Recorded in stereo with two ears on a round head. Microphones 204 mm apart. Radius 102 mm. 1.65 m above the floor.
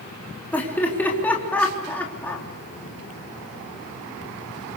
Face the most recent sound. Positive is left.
turn(degrees=5)  # may be behind; listen again after turning